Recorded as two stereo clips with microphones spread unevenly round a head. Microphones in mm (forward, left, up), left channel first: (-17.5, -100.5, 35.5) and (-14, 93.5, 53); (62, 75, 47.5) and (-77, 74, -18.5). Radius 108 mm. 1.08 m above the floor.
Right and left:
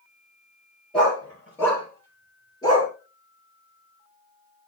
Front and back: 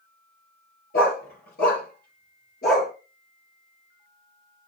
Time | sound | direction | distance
0.9 | a dog barking | 5° right | 6.5 m